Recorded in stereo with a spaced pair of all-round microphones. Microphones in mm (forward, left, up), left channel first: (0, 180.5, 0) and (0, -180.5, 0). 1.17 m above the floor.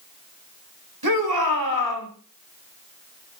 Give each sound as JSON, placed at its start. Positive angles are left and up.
{"t": 1.0, "sound": "a shout", "side_deg": -75, "distance_m": 2.5}